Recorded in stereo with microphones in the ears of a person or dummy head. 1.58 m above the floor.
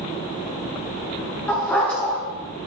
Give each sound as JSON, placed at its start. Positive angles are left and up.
{"t": 1.5, "sound": "a dog barking", "side_deg": 10, "distance_m": 7.0}